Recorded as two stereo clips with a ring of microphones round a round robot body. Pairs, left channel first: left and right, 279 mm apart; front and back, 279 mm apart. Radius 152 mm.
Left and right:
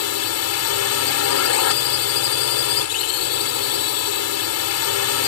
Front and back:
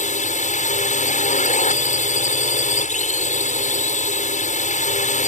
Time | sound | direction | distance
0.0 | a drone | 65° left | ?